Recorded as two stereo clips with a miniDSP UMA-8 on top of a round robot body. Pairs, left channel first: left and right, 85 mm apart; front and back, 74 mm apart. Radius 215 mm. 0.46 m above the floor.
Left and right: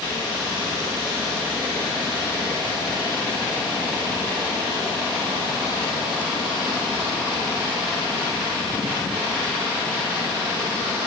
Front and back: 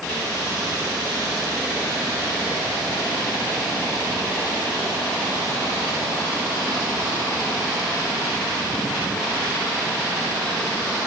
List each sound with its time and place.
Only background noise.